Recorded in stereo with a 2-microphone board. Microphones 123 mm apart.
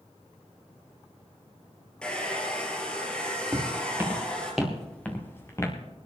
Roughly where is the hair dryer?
Centre.